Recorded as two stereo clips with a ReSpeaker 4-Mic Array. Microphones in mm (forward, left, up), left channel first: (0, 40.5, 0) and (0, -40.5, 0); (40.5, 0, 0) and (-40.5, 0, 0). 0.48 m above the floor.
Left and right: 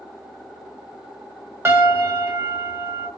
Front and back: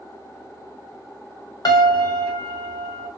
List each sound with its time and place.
1.6 s a piano: 30° right, 0.6 m